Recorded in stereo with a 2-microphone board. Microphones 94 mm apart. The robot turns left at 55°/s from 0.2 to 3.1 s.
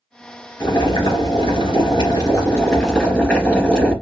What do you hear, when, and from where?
0.6 s boiling: 130° left, 2 m; by 3.9 s 10° right, 2 m